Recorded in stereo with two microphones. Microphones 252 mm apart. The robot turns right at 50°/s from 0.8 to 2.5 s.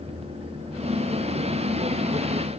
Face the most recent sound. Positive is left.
No sound to turn to.